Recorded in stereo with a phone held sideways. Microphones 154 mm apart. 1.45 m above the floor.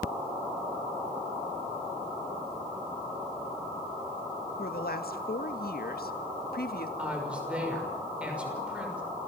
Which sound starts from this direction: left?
A woman speaking, at 4.6 s.